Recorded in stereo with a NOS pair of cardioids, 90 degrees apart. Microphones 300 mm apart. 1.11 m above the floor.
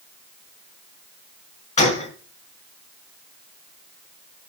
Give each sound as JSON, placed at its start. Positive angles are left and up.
{"t": 1.8, "sound": "a gunshot", "azimuth_deg": 25, "distance_m": 2.5}